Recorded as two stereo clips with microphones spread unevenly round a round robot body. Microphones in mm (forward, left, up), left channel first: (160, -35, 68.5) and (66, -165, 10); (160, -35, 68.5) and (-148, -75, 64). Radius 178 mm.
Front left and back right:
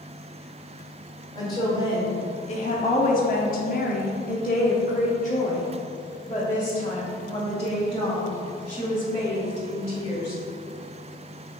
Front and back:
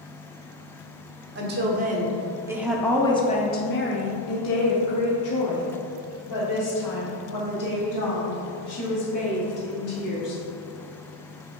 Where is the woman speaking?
140° left, 1.3 m; by 10.4 s 10° right, 4 m.